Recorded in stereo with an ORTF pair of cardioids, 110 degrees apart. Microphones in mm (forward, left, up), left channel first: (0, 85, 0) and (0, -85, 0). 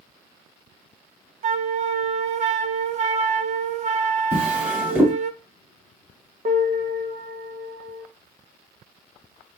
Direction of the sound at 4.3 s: 15° right.